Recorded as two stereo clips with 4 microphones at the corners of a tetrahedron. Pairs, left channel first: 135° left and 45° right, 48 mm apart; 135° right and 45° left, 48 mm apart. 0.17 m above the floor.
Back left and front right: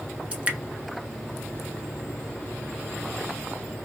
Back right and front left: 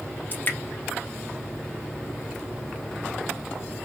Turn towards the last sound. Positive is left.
turn(degrees=-105)